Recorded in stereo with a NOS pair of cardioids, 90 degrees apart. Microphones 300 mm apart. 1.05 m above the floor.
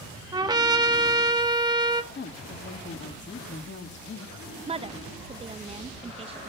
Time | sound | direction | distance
0.3 | a trumpet | 15° right | 1.5 m
2.1 | a woman speaking | 40° left | 1.9 m
4.7 | a woman speaking | 20° right | 0.8 m